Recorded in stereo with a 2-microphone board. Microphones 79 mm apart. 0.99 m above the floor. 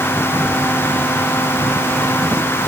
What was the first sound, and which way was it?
Only background noise.